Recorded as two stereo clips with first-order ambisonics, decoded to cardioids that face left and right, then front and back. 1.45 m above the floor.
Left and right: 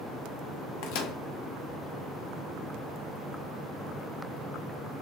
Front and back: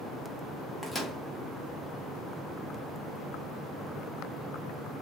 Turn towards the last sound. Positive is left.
turn(degrees=85)